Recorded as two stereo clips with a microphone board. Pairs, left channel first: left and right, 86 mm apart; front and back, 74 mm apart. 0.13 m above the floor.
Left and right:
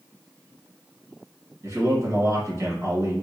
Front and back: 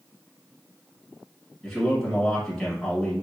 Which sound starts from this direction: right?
A man speaking, at 1.6 s.